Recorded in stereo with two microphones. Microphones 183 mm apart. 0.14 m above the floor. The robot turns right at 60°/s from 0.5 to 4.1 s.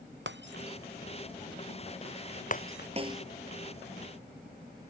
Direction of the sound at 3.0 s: 35° right (ahead or behind).